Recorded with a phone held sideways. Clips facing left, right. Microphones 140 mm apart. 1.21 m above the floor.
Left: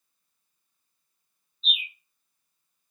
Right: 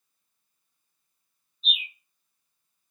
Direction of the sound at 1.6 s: 10° right (ahead or behind).